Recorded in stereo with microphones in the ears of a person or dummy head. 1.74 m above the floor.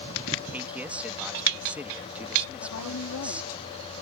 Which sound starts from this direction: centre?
A man speaking, at 0.5 s.